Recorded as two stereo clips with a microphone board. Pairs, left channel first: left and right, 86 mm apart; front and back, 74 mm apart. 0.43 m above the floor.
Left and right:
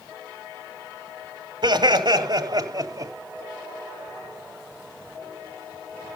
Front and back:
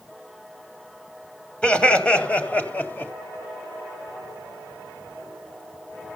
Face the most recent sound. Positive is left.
turn(degrees=-55)